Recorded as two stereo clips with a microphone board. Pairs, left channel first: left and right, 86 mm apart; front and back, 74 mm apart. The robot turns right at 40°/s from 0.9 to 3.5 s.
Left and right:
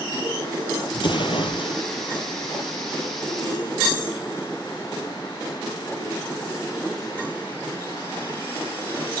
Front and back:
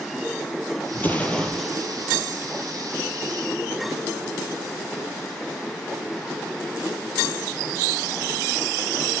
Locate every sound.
0.9 s an explosion: 60° left, 2.5 m; by 1.8 s 95° left, 2.5 m